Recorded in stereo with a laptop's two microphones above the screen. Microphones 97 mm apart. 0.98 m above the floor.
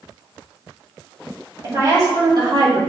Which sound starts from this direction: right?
A woman speaking, at 1.6 s.